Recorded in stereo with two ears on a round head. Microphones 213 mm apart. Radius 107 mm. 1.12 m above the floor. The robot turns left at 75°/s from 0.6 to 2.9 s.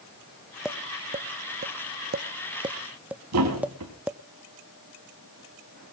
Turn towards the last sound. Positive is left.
turn(degrees=-80)